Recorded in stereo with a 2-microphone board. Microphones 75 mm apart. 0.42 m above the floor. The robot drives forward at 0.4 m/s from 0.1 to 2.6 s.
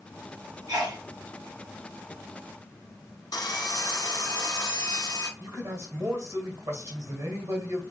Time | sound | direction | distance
0.7 | a sneeze | 65° right (ahead or behind) | 2.5 m
3.3 | sawing | 60° left (ahead or behind) | 1.0 m
5.4 | a man speaking | 40° right (ahead or behind) | 1.8 m